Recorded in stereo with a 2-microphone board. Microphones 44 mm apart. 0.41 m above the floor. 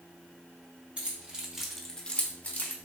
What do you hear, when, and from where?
1.0 s keys jangling: 25° right (ahead or behind), 1.0 m; by 2.8 s 45° left (ahead or behind), 0.8 m